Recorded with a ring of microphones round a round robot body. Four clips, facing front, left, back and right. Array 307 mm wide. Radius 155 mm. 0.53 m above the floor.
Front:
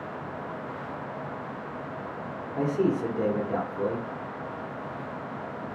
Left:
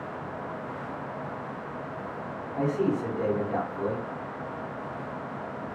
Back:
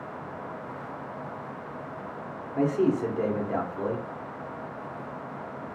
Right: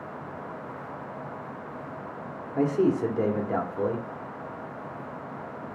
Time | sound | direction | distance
2.5 | a man speaking | 95° right | 1.0 m